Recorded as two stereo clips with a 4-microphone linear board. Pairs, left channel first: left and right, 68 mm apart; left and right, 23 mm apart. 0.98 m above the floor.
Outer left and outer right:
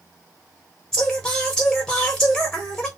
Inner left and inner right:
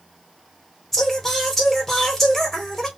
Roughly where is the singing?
Centre.